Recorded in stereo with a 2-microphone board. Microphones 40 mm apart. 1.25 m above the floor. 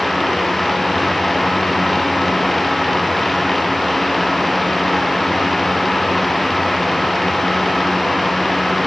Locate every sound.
Only background noise.